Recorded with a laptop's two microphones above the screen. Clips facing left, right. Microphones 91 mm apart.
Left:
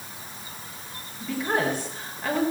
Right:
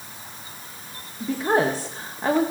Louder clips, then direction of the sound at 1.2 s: Right 5 dB; 35° right (ahead or behind).